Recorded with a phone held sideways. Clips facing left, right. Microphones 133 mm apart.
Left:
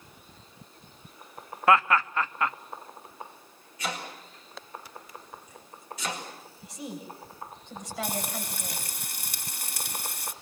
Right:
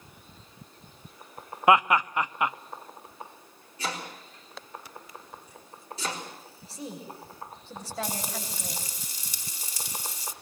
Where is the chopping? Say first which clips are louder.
Even; 30° right (ahead or behind), 5 m.